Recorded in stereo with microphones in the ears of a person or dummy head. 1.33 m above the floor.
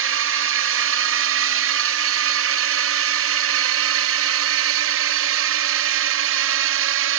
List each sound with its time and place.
0.0 s a drone: 60° right (ahead or behind); by 7.2 s 65° right (ahead or behind)